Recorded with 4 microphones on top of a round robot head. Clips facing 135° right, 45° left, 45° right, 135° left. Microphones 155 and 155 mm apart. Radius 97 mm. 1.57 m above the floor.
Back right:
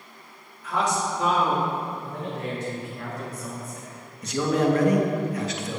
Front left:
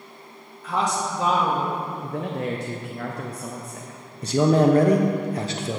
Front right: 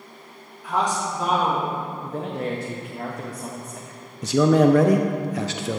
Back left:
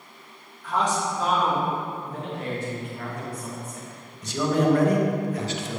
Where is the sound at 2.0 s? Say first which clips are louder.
Front left 4 dB, front right 4 dB; 10° left, 0.7 m.